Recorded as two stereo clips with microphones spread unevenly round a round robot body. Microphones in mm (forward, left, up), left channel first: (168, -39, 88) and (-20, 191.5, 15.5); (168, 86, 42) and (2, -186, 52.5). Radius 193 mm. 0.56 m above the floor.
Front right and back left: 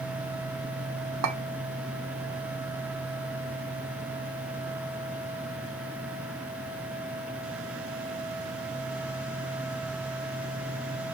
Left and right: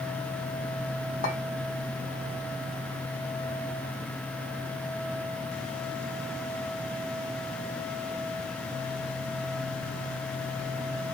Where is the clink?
125° left, 0.9 m.